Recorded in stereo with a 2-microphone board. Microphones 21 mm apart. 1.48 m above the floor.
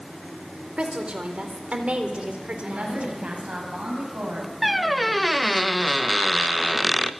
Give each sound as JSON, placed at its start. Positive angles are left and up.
{"t": 0.8, "sound": "a woman speaking", "side_deg": -80, "distance_m": 4.0}
{"t": 2.6, "sound": "a woman speaking", "side_deg": -75, "distance_m": 9.0}
{"t": 4.6, "sound": "a squeak", "side_deg": -5, "distance_m": 0.8}